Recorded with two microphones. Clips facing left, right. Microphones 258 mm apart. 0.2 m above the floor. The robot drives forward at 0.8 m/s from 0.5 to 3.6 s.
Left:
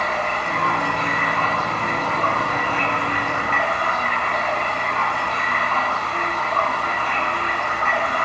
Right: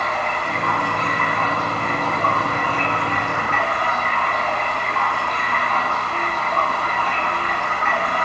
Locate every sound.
0.0 s running water: 80° left, 3 m; by 8.2 s 55° left (ahead or behind), 3.5 m